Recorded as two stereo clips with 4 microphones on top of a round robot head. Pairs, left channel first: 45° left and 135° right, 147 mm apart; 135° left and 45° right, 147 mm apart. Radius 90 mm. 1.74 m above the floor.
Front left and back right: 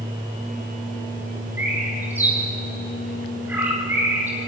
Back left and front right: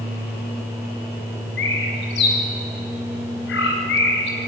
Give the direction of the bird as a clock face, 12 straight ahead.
7 o'clock.